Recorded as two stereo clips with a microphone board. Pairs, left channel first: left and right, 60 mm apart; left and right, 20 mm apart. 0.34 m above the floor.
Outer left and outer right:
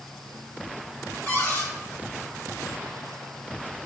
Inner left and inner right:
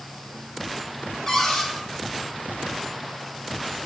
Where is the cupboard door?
20° left (ahead or behind), 1.7 m.